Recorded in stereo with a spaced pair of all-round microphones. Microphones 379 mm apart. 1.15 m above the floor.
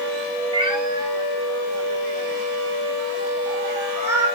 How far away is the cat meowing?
About 2.5 m.